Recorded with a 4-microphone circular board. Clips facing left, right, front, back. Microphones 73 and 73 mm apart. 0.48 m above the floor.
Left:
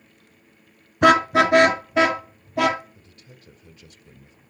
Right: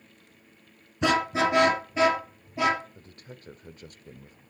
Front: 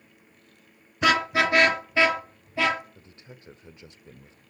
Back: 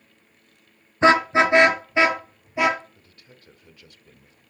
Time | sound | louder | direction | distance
1.0 | a car horn | left 8 dB, back 6 dB | 120° left | 2 m
3.0 | a man speaking | right 3 dB, front 4 dB | 60° right | 1.1 m